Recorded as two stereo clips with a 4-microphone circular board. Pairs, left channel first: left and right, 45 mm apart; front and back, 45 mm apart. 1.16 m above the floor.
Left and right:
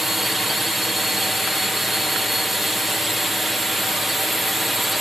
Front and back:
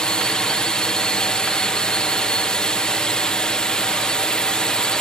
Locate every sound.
0.0 s a drone: 15° right